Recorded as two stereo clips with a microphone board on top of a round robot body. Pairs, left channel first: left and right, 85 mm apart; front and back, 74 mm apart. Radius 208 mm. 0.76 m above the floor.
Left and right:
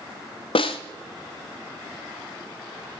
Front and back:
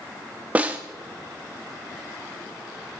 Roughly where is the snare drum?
Left.